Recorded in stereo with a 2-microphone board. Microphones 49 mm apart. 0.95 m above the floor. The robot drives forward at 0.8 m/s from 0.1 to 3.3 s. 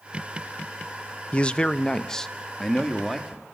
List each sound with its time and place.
1.3 s a man speaking: 25° left (ahead or behind), 0.5 m; by 3.4 s 5° left (ahead or behind), 1.9 m